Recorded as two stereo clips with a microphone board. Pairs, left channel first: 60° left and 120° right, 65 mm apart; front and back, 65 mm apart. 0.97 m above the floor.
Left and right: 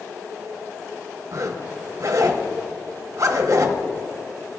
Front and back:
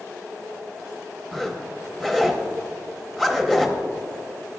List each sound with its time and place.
1.3 s a zipper: 85° right, 0.9 m